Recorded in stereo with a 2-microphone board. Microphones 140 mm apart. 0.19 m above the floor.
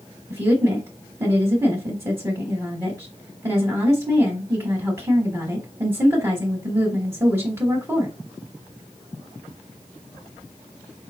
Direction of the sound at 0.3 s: 20° right (ahead or behind).